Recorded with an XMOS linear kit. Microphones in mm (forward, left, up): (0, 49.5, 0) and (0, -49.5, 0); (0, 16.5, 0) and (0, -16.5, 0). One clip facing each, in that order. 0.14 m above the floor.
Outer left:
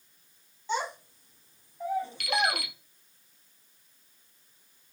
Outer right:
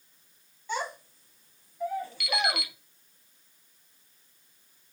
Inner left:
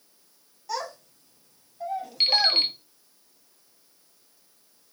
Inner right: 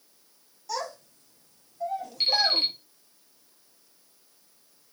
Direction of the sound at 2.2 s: 55° left (ahead or behind).